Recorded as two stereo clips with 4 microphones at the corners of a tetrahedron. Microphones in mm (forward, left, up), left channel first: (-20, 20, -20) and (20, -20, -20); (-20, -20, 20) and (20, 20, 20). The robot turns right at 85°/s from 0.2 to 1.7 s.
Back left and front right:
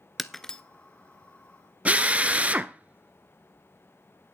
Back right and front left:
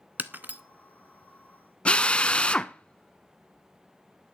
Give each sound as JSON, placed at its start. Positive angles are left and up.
{"t": 0.2, "sound": "breaking glass", "azimuth_deg": 40, "distance_m": 0.6}
{"t": 1.9, "sound": "a drill", "azimuth_deg": -80, "distance_m": 0.5}